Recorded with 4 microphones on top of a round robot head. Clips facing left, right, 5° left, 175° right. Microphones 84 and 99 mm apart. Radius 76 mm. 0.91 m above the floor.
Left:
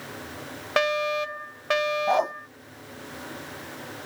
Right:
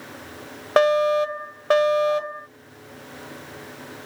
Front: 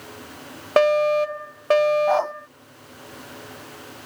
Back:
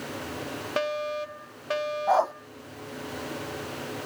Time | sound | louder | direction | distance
0.8 | a fire alarm | right 7 dB, front 13 dB | 40° right | ?
2.1 | a dog barking | left 1 dB, front 2 dB | 105° left | ?